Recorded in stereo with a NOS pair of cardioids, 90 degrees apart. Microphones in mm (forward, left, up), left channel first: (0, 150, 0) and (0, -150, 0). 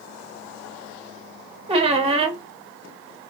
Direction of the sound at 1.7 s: 20° right.